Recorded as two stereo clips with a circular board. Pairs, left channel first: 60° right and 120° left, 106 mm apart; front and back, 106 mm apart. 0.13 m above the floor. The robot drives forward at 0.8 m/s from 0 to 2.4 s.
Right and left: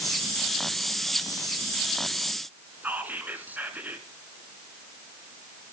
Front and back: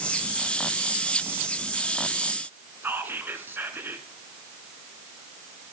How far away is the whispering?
About 1.1 m.